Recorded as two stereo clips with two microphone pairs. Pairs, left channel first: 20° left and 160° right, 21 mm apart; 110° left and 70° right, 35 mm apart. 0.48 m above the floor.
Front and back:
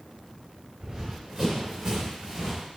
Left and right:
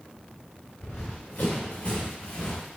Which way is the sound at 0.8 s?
150° left.